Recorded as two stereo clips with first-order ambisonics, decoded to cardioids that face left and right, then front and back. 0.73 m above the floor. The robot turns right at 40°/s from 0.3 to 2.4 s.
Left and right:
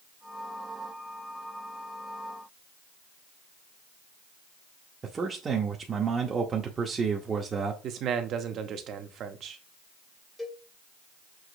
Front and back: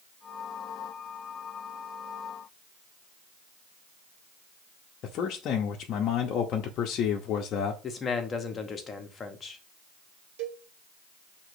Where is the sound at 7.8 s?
60° right, 0.8 m.